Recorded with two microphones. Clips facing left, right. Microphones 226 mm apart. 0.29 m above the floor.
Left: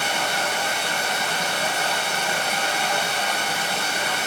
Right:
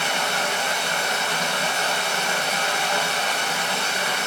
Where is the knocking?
I don't hear knocking.